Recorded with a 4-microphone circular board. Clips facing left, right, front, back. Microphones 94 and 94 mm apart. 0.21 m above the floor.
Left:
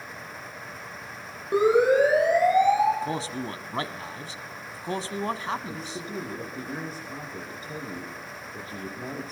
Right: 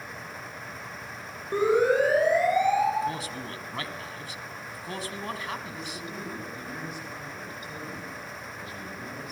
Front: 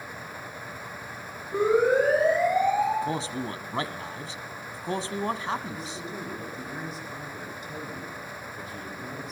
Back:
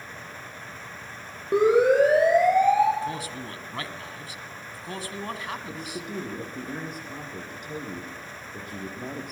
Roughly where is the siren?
Behind.